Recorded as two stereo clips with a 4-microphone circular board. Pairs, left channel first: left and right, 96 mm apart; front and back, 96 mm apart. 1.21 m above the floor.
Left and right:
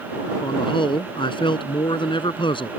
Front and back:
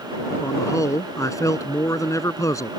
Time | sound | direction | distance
0.4 | a man speaking | 55° left | ?